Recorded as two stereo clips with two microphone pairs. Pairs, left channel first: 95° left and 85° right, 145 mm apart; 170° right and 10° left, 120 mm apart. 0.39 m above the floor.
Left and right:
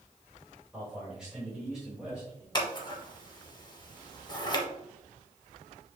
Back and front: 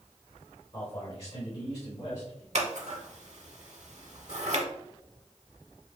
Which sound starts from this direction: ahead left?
Scissors, at 2.5 s.